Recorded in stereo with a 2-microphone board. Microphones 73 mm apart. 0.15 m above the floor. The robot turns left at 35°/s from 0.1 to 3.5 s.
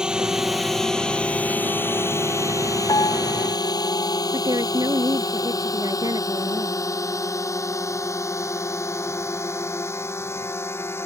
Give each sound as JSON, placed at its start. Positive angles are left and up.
{"t": 0.0, "sound": "a drone", "side_deg": -10}
{"t": 2.9, "sound": "a piano", "side_deg": 70}
{"t": 4.3, "sound": "a woman speaking", "side_deg": -60}